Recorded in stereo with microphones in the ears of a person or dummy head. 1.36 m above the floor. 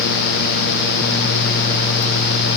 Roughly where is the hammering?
No hammering in this recording.